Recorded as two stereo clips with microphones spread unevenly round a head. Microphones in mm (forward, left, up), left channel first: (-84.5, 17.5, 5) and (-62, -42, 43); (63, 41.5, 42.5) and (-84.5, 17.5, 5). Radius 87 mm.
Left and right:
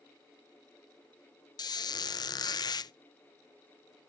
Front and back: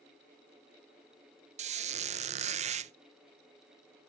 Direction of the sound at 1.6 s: 140° left.